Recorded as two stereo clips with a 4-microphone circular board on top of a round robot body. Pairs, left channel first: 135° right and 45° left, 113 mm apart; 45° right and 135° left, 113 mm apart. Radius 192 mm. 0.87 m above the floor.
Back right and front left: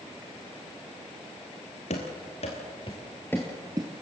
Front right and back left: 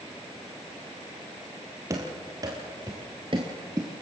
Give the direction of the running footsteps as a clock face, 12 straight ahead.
5 o'clock.